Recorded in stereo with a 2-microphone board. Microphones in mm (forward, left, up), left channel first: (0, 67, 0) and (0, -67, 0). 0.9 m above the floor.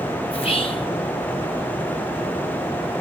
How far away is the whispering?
About 1.4 m.